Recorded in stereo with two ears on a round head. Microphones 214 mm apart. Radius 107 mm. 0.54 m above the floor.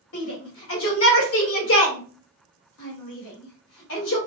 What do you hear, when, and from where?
0.1 s a shout: 65° left (ahead or behind), 2.5 m